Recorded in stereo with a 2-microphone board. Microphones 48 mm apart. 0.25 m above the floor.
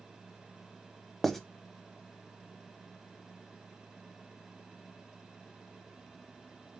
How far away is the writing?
About 0.5 m.